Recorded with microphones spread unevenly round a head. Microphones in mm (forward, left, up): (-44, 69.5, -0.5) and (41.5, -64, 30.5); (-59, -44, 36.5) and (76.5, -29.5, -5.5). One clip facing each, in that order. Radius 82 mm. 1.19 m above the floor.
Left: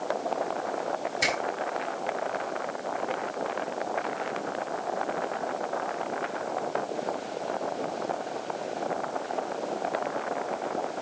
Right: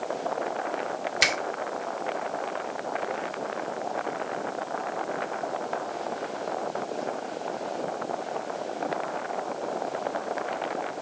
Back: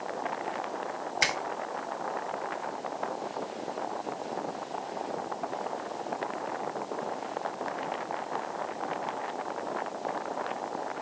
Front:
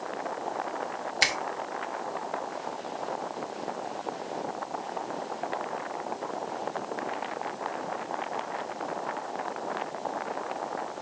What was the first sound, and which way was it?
A finger snap, 50° right.